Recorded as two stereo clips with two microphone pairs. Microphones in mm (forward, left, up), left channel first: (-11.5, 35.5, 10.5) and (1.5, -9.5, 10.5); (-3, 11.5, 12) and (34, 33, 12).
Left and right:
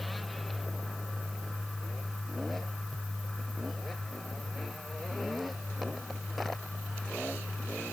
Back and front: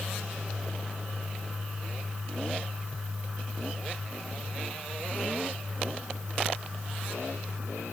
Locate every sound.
Only background noise.